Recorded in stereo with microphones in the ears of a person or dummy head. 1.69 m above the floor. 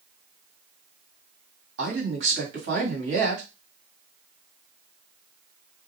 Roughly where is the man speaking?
Right.